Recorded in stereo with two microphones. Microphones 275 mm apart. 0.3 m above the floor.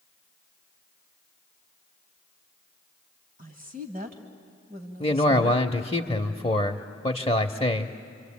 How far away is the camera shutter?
No camera shutter in this recording.